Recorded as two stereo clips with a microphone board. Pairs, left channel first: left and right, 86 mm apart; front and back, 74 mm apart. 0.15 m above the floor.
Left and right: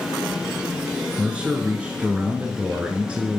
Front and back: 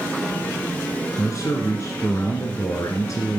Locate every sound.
1.2 s a man speaking: 20° right, 1.7 m